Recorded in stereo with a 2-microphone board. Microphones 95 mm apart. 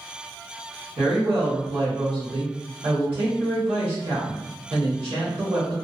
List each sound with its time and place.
1.0 s a woman speaking: 80° right, 1.3 m